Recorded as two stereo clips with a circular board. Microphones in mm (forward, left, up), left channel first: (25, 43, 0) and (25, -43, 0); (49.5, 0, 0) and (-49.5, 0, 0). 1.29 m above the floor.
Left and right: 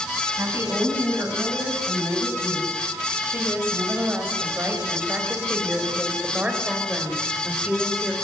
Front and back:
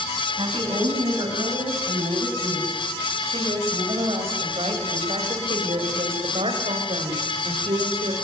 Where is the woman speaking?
145° right, 9 m; by 8.1 s 175° right, 5 m.